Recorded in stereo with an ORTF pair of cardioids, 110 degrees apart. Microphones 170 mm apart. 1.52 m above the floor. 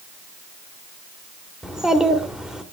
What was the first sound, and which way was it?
A child speaking, 5° right.